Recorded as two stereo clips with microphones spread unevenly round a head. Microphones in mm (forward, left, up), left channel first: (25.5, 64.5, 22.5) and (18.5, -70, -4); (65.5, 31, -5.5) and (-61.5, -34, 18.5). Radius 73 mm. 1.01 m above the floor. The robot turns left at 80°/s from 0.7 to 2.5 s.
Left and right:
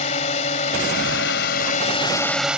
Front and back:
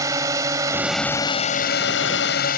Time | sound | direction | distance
0.0 | a drone | 135° left | ?